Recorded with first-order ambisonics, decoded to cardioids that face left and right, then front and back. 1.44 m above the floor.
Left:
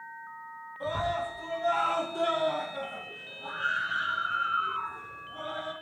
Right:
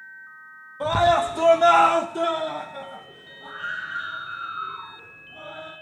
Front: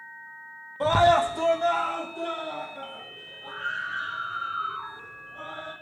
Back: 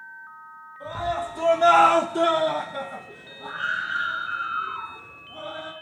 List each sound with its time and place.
0.8 s a scream: 40° right, 0.9 m; by 5.7 s straight behind, 4.5 m